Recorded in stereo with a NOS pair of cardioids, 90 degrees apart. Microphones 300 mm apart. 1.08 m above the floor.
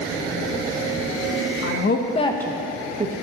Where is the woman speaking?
50° left, 1.0 m; by 3.1 s 35° right, 1.0 m.